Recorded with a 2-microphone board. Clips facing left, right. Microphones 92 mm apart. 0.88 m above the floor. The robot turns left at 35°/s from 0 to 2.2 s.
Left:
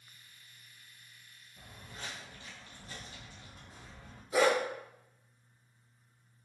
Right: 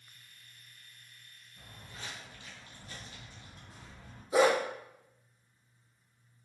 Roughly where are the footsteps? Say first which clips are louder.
Left 1 dB; left.